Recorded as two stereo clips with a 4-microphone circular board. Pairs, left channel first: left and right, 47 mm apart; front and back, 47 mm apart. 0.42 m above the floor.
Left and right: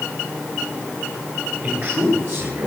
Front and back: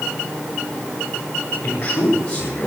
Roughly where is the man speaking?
Ahead right.